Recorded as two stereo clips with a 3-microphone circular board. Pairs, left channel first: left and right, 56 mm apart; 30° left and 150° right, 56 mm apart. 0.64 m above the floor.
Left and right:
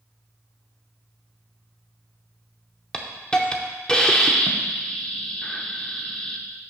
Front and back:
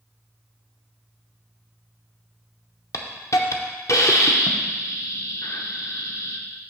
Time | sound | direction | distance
2.9 | a hiss | 15° left | 0.7 m